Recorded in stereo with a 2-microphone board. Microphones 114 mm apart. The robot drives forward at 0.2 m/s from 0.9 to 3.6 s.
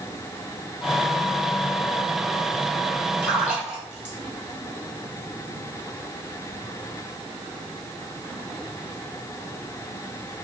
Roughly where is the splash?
Centre.